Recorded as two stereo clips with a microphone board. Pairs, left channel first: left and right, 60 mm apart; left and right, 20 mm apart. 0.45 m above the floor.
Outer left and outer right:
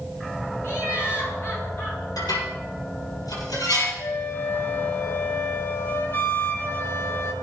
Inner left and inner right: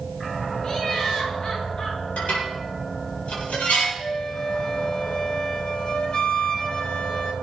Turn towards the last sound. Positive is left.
turn(degrees=35)  # may be behind; listen again after turning